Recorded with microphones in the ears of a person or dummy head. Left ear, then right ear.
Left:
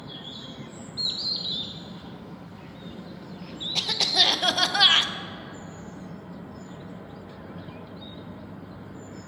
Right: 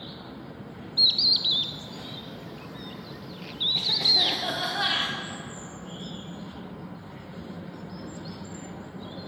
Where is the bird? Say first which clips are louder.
Right 8 dB; 20° right (ahead or behind), 0.5 m.